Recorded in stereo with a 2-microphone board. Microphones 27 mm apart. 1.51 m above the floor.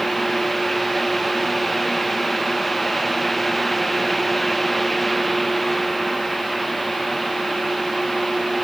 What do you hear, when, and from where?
Only background noise.